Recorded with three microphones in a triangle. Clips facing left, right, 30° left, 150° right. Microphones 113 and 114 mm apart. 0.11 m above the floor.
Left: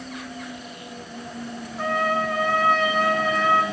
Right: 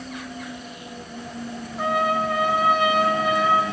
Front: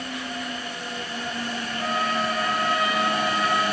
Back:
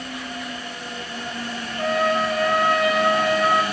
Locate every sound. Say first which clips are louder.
1.8 s a trumpet: right 1 dB, back 6 dB; 170° right, 6 m